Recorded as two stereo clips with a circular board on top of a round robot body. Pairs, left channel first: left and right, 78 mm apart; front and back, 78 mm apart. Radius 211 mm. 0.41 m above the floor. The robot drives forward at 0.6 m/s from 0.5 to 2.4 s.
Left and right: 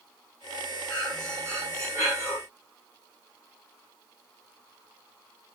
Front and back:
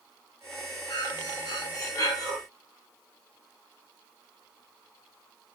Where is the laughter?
I don't hear laughter.